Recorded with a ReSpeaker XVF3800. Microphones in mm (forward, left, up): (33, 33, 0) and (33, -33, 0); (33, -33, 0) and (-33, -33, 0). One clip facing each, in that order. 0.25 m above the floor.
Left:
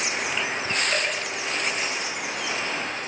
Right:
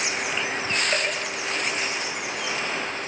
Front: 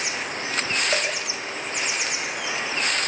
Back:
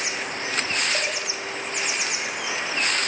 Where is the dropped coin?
10° right, 9 m.